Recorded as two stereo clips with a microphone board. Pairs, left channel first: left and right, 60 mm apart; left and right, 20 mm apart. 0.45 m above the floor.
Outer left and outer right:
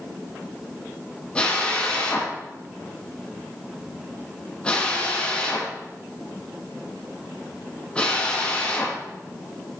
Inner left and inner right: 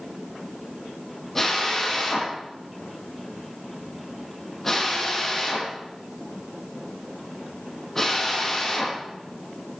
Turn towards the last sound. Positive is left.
turn(degrees=15)  # may be behind; listen again after turning